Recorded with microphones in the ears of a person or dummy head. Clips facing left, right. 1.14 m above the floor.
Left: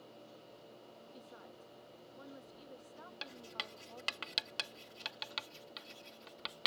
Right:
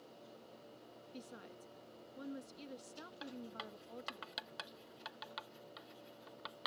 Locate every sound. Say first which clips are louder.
1.1 s a woman speaking: right 5 dB; 25° right (ahead or behind)
3.2 s writing: right 5 dB; 45° left (ahead or behind)